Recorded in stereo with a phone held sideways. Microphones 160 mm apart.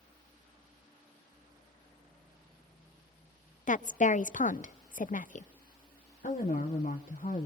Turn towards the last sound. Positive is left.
turn(degrees=60)  # may be behind; listen again after turning